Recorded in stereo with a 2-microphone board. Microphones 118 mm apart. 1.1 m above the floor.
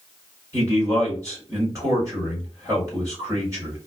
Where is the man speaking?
25° right (ahead or behind), 1.5 m.